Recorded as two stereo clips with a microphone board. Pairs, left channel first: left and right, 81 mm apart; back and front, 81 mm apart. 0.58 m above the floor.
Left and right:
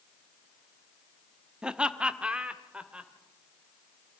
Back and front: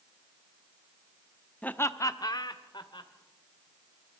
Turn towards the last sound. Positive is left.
turn(degrees=-165)